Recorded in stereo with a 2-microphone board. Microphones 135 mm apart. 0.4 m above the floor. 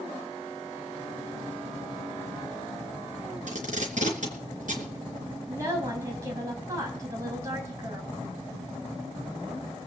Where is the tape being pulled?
70° right (ahead or behind), 3.5 m.